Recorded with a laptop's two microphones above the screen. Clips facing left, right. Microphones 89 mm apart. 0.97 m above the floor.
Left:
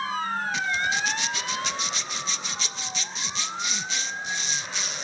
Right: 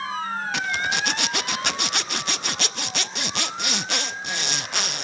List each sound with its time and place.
0.5 s a zipper: 75° right (ahead or behind), 0.5 m